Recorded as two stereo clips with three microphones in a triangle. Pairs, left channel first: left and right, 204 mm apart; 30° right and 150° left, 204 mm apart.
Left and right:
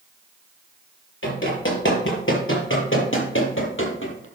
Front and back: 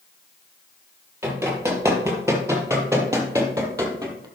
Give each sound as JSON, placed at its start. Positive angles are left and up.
{"t": 1.2, "sound": "running footsteps", "azimuth_deg": 70, "distance_m": 6.5}